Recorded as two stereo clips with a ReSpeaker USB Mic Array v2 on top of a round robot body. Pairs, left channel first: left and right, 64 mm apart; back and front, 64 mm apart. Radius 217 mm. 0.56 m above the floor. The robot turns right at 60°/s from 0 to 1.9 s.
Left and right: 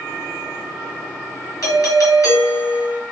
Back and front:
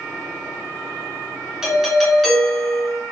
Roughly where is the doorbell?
Left.